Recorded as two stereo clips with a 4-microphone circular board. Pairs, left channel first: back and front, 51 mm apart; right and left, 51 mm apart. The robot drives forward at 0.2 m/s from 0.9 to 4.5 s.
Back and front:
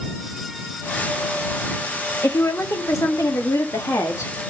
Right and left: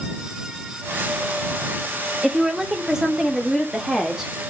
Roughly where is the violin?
I don't hear a violin.